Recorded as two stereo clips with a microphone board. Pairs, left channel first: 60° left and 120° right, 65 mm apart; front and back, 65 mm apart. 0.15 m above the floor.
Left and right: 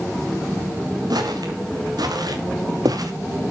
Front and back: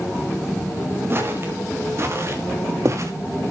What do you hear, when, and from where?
1.1 s footsteps: 125° right, 3.5 m; by 3.1 s 140° right, 2.5 m